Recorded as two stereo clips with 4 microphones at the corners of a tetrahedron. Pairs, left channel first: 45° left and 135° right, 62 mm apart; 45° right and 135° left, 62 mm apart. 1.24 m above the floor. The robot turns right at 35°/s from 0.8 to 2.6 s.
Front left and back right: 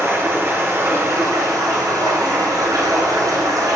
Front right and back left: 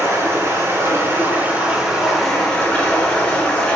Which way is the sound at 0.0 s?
Straight behind.